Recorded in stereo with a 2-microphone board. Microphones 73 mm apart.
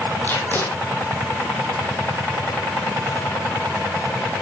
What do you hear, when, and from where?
0.2 s tape being pulled: 25° left (ahead or behind), 4 m